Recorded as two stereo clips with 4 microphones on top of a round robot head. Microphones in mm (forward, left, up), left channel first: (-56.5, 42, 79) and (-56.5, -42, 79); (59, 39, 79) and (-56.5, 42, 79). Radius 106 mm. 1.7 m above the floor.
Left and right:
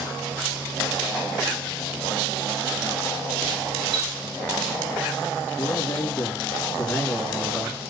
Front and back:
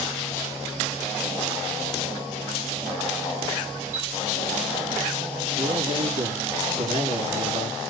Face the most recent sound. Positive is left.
turn(degrees=165)